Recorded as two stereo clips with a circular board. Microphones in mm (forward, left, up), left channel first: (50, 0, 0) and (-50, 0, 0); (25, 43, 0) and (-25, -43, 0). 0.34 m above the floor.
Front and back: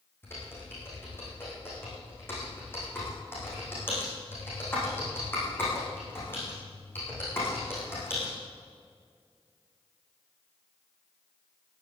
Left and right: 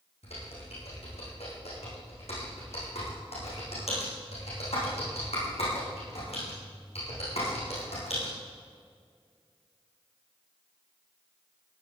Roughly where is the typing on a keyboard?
Left.